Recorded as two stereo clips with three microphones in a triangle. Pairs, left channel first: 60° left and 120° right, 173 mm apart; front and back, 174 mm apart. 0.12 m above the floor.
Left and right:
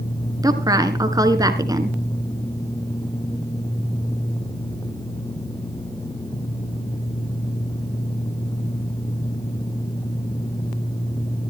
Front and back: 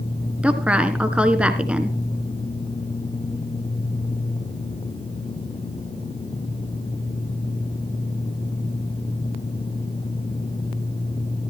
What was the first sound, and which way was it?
A woman speaking, 110° right.